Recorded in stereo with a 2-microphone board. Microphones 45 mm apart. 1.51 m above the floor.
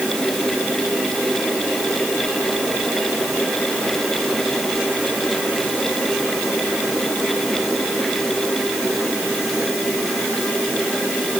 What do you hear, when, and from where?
Only background noise.